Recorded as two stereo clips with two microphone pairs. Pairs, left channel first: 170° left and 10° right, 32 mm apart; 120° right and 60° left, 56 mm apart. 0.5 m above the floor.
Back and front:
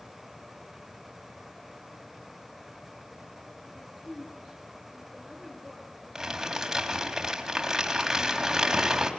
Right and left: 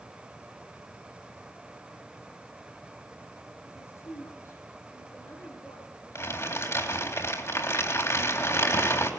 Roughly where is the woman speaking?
Behind right.